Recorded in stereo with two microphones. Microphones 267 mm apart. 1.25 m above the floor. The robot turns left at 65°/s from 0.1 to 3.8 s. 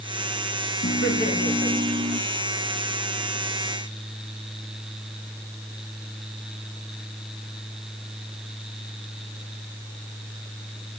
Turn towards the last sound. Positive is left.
turn(degrees=-130)